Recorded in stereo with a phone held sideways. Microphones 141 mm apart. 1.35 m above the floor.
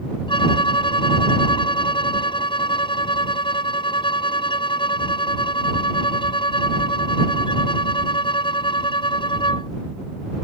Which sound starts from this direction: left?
A violin, at 0.3 s.